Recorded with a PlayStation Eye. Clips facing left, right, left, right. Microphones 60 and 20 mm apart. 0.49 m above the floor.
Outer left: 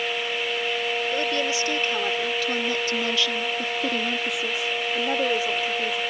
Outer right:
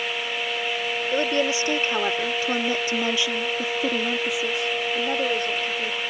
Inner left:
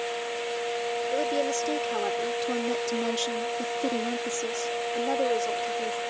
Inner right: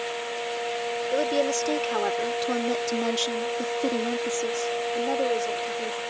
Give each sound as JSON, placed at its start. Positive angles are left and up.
{"t": 1.1, "sound": "a woman speaking", "side_deg": -25}